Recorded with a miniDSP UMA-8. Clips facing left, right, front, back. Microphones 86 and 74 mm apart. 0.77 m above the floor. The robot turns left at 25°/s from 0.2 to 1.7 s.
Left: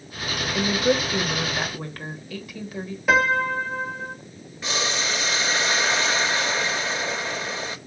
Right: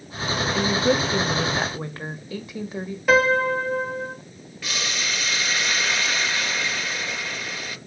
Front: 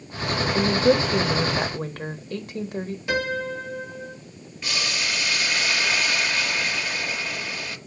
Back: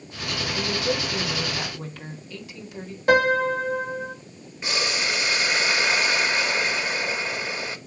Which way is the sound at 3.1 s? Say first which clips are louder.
Right 2 dB, back 8 dB; 175° left.